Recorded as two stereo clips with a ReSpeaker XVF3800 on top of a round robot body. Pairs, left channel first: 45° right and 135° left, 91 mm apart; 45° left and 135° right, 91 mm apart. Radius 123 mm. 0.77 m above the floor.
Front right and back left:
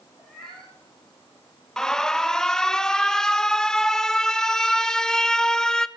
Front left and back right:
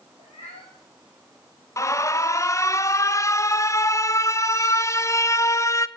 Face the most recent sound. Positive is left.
turn(degrees=35)